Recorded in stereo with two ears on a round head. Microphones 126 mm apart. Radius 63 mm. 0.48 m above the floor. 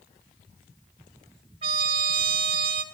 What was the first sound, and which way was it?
A trumpet, 40° right (ahead or behind).